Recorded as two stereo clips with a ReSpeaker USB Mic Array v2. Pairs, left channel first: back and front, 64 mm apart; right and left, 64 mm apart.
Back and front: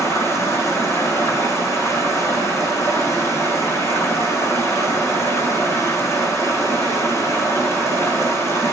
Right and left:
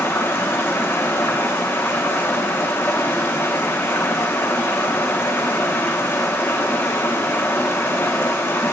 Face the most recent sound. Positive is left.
turn(degrees=-140)